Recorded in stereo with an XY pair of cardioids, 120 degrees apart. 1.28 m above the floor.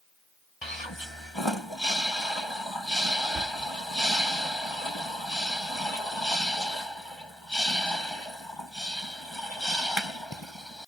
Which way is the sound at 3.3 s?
50° right.